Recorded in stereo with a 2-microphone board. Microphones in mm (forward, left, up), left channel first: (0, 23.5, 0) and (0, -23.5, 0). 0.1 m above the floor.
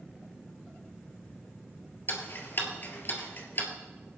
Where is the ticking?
45° left (ahead or behind), 2 m.